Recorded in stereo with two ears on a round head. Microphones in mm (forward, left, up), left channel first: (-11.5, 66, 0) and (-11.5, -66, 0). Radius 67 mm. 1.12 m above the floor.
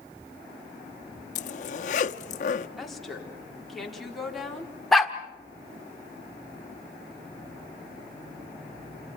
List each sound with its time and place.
1.4 s a zipper: 60° left (ahead or behind), 0.9 m
2.8 s a woman speaking: centre (ahead or behind), 3.5 m
4.9 s a dog barking: centre (ahead or behind), 1.4 m